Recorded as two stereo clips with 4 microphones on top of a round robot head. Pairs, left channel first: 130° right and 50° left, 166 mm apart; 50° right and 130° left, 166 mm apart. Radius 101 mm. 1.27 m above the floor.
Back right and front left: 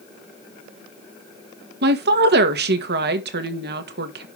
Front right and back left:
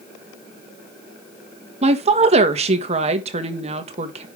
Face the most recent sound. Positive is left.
turn(degrees=75)